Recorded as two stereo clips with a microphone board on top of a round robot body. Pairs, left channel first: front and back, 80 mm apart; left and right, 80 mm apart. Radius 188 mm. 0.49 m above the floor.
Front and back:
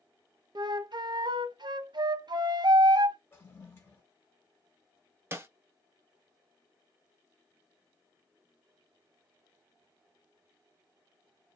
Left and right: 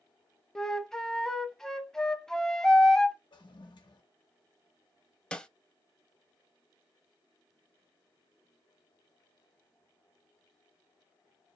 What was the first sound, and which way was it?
A flute, 170° left.